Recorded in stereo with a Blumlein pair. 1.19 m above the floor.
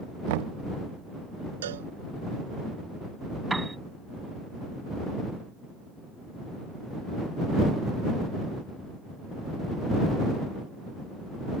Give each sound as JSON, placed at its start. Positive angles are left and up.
{"t": 0.3, "sound": "knocking", "azimuth_deg": -50}
{"t": 1.6, "sound": "a cowbell", "azimuth_deg": -60}
{"t": 3.5, "sound": "a piano", "azimuth_deg": -5}